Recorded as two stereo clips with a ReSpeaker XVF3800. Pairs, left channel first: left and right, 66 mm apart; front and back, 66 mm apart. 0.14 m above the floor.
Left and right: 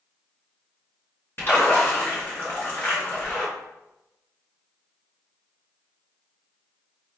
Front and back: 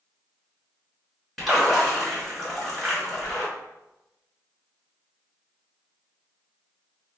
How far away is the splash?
About 1.5 m.